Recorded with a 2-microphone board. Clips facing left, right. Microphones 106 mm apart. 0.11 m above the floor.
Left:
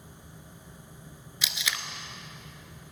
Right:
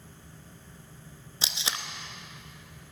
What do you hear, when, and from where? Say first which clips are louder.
1.4 s tape being pulled: even; 35° right (ahead or behind), 0.6 m